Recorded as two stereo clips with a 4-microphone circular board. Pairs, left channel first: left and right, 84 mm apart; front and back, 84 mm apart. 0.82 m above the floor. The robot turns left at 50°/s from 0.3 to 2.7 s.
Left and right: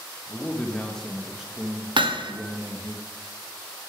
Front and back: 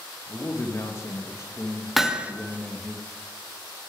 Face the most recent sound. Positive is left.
turn(degrees=-125)